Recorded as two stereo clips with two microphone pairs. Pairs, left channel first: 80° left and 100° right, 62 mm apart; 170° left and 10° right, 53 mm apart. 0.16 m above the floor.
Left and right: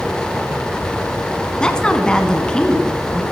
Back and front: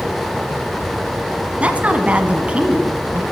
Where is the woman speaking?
20° left, 1.3 m.